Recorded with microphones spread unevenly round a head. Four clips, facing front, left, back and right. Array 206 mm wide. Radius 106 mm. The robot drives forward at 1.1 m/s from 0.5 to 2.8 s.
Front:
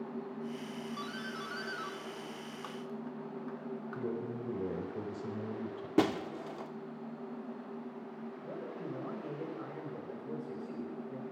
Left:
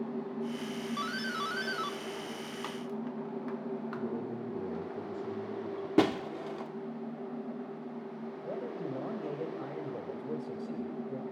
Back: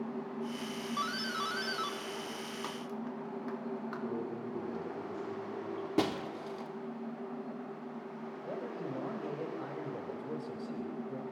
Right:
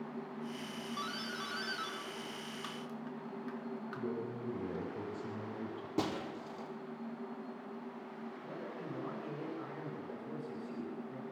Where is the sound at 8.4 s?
95° left, 5 m.